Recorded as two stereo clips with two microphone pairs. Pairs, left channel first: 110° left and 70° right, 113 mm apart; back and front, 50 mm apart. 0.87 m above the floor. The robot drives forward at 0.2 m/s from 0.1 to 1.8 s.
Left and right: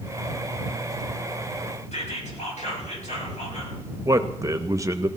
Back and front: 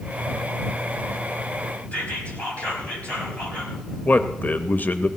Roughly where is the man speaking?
Behind right.